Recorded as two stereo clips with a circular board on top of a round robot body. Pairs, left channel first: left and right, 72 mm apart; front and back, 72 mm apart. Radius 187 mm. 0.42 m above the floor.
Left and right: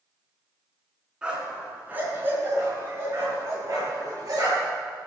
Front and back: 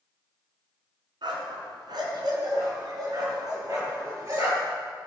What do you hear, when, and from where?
1.2 s a dog barking: 170° right, 3.5 m; by 4.8 s 130° right, 6 m